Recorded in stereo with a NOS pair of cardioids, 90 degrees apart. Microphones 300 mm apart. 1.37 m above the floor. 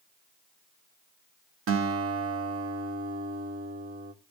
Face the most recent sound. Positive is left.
turn(degrees=-50)